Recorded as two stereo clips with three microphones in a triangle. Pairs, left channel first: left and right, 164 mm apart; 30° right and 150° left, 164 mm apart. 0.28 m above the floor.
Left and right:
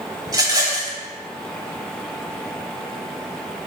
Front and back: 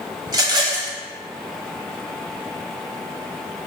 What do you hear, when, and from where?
0.3 s a rattle: 150° right, 0.6 m